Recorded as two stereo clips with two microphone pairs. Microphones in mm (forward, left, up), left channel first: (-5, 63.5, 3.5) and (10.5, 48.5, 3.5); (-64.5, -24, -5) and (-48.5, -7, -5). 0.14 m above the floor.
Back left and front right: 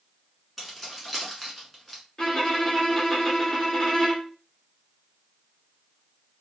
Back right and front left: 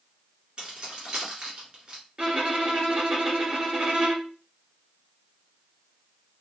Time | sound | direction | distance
0.6 | keys jangling | 55° left | 1.1 m
2.2 | a violin | 75° left | 1.0 m